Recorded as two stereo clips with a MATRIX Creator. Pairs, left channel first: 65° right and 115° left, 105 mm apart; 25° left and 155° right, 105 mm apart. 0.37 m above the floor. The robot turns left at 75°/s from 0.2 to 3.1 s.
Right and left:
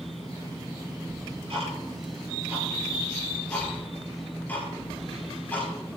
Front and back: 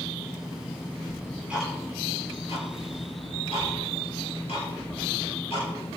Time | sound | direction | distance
1.1 | ticking | 155° left | 6 m